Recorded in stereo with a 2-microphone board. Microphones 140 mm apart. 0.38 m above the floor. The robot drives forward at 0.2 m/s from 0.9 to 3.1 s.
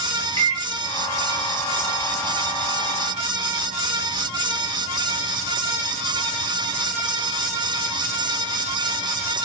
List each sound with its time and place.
0.4 s a microwave: 20° left (ahead or behind), 1.1 m